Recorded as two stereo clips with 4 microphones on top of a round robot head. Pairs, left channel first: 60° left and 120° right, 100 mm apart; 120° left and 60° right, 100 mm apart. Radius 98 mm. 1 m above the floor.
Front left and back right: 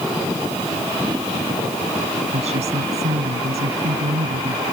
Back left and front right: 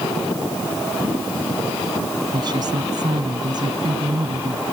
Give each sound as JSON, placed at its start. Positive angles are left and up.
{"t": 2.3, "sound": "a woman speaking", "azimuth_deg": -110}